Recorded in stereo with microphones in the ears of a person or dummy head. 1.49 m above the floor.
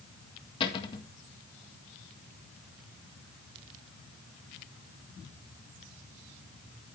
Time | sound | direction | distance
0.6 | a cupboard door | 25° left (ahead or behind) | 1.7 m